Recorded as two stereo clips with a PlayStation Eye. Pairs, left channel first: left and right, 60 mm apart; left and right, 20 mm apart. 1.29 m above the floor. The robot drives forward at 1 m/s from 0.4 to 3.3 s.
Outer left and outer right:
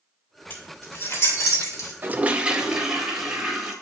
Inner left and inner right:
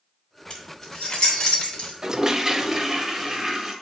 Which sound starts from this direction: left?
Keys jangling, at 0.5 s.